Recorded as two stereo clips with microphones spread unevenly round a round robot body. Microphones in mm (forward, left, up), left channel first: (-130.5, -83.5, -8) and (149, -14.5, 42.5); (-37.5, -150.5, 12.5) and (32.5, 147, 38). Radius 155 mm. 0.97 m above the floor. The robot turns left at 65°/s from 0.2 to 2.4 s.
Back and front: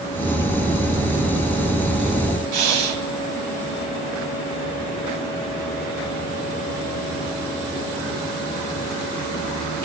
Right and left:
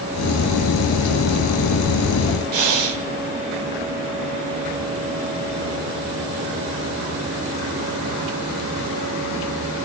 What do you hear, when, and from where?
2.5 s breathing: 50° left, 1.7 m